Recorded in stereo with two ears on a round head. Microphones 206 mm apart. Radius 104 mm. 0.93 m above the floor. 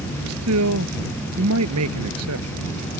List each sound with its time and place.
0.3 s a man speaking: 70° right (ahead or behind)